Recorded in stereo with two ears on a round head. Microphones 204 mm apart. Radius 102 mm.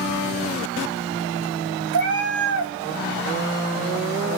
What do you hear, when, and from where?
1.9 s a cat meowing: 70° right (ahead or behind), 1.1 m